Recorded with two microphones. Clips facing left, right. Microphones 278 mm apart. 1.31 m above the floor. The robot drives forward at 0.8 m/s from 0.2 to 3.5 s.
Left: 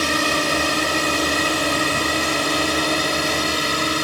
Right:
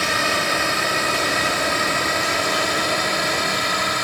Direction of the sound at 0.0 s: 40° left (ahead or behind).